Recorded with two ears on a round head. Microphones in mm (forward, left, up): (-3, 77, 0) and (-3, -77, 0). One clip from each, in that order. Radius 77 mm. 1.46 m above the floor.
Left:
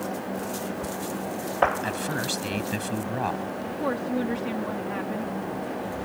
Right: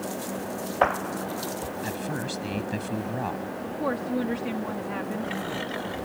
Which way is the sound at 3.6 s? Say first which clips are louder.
Even; centre (ahead or behind).